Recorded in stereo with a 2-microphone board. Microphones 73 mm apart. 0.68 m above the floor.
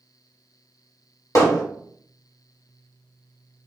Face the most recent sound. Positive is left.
turn(degrees=45)  # may be behind; listen again after turning